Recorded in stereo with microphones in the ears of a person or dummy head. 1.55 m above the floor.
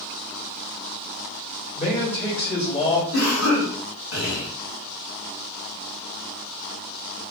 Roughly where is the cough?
Left.